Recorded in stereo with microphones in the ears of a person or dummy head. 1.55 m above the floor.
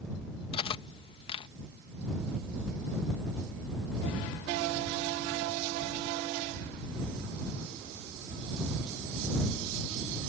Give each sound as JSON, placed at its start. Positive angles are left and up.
{"t": 0.5, "sound": "cutlery clinking", "side_deg": 30}